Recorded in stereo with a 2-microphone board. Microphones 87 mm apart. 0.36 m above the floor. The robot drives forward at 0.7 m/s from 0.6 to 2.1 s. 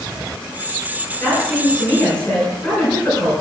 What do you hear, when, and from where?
1.2 s a woman speaking: 15° left (ahead or behind), 4 m